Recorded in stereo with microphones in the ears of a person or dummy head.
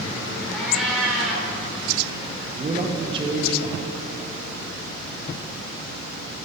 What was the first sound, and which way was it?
A cat meowing, centre (ahead or behind).